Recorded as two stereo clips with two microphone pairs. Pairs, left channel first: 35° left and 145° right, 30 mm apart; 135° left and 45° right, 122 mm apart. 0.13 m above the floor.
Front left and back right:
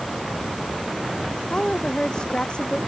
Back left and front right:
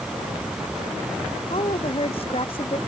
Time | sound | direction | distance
1.5 | a woman speaking | 100° left | ?